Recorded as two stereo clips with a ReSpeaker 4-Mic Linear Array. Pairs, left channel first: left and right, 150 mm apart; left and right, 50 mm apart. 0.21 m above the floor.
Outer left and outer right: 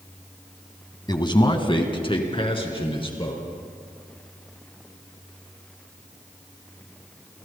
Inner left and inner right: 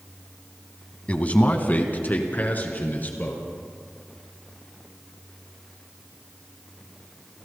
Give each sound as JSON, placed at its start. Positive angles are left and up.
{"t": 1.1, "sound": "a man speaking", "side_deg": 30, "distance_m": 1.7}